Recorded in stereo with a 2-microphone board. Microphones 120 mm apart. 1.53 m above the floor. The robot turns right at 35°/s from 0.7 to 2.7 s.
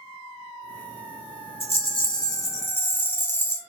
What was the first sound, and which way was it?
A rattle, 125° left.